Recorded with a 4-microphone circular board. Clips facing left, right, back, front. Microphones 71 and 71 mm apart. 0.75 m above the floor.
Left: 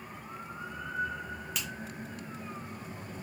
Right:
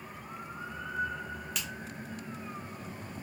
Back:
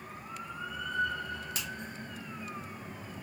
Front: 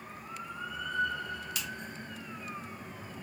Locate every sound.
1.6 s a finger snap: straight behind, 1.0 m